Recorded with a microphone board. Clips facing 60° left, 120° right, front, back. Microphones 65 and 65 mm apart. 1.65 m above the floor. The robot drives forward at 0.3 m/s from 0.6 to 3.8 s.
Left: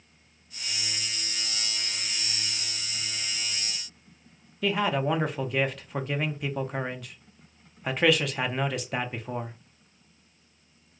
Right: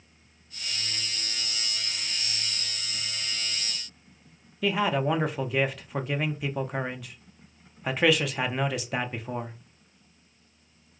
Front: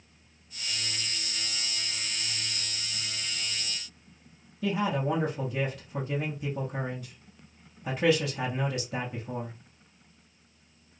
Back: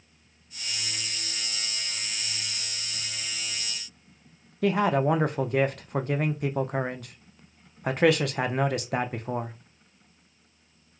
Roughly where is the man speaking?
Behind left.